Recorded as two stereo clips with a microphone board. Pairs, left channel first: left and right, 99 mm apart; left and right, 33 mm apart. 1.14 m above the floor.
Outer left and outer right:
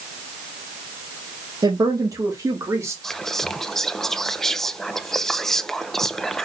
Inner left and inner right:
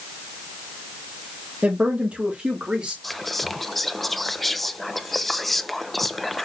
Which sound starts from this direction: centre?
Whispering, at 3.0 s.